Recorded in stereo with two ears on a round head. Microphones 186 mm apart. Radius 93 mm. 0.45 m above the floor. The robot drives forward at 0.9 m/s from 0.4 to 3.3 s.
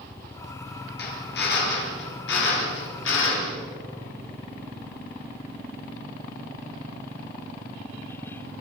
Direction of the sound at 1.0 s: 55° left (ahead or behind).